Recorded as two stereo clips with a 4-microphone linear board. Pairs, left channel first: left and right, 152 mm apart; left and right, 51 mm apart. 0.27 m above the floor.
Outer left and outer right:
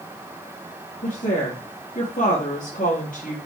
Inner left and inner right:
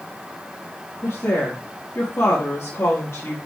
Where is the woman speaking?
60° left (ahead or behind), 5 m.